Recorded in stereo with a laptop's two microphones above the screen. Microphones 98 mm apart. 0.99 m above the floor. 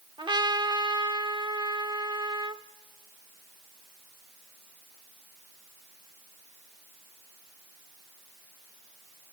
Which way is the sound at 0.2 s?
50° right (ahead or behind).